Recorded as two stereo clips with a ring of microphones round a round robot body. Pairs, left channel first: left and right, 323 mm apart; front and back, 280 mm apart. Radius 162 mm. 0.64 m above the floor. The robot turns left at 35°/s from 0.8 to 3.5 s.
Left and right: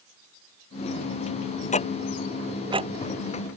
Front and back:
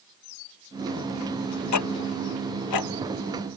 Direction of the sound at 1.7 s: 20° left.